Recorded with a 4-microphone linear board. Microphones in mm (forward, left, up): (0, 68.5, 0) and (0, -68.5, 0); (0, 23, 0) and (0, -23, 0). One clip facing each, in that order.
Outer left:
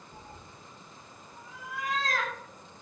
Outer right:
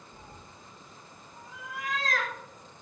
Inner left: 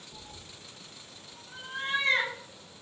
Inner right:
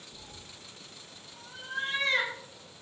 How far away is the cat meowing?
About 1.8 m.